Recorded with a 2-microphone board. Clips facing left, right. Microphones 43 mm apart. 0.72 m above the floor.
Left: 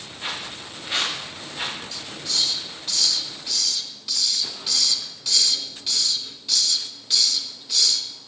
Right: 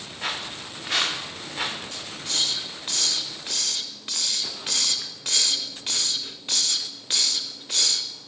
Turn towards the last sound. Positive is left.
turn(degrees=-40)  # may be behind; listen again after turning